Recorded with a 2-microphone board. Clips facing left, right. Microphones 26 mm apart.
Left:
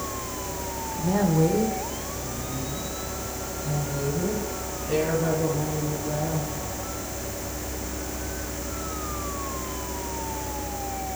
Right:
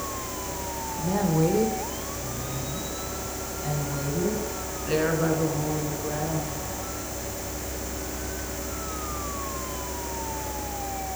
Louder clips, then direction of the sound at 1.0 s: Left 2 dB; 15° left (ahead or behind).